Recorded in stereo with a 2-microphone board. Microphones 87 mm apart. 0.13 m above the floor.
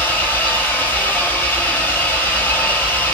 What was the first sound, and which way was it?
An engine running, 25° left (ahead or behind).